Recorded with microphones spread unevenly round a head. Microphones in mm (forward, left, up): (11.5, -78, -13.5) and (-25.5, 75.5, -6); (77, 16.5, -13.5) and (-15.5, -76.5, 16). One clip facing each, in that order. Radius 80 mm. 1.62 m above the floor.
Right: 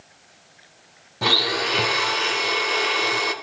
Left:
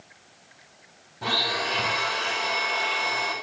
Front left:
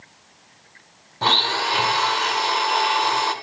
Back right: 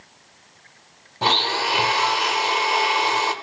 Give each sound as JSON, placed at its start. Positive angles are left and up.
{"t": 1.2, "sound": "a blender", "azimuth_deg": -55, "distance_m": 1.2}